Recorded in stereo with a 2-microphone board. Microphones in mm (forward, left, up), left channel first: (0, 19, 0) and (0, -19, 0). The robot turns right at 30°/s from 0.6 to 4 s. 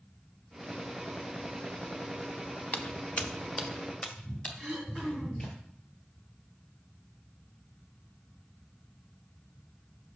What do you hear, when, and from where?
2.7 s footsteps: 35° left (ahead or behind), 0.9 m; by 5.6 s 25° left (ahead or behind), 3.5 m
4.6 s throat clearing: 15° left (ahead or behind), 1.6 m